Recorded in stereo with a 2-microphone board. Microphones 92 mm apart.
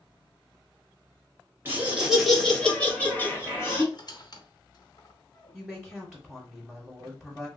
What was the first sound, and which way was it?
Laughter, 20° right (ahead or behind).